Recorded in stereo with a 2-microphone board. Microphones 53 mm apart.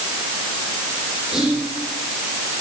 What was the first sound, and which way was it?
Whispering, centre (ahead or behind).